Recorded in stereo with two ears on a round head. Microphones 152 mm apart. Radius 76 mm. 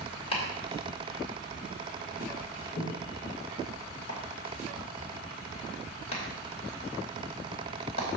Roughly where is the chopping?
Left.